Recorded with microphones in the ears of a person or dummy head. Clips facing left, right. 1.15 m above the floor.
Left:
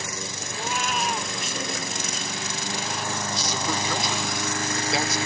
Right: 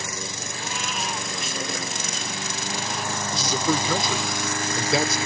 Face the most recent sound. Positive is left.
turn(degrees=-75)  # may be behind; listen again after turning